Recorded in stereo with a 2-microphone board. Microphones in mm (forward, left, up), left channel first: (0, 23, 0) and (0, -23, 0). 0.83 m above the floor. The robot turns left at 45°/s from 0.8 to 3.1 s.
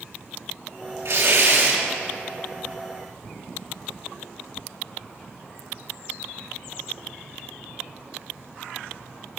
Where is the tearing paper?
75° right, 3 m; by 1.8 s 110° right, 3 m.